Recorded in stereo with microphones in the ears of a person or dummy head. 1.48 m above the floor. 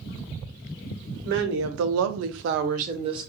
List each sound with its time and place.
1.2 s a woman speaking: 55° right (ahead or behind), 0.7 m; by 3.3 s 25° right (ahead or behind), 0.7 m